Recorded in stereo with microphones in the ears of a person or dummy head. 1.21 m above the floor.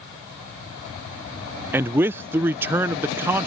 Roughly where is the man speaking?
Centre.